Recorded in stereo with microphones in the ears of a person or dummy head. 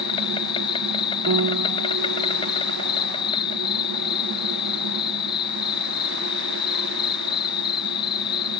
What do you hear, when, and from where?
0.0 s an insect: 25° left (ahead or behind)
1.3 s a piano: 70° right (ahead or behind)